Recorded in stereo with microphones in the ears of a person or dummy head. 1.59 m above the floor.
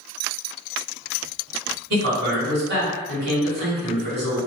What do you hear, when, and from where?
1.9 s a man speaking: 60° right (ahead or behind), 1.4 m